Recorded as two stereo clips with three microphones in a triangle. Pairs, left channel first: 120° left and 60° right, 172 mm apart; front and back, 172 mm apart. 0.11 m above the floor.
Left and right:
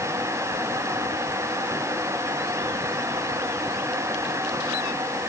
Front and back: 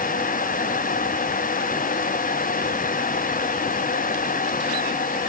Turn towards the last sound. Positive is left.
No sound to turn to.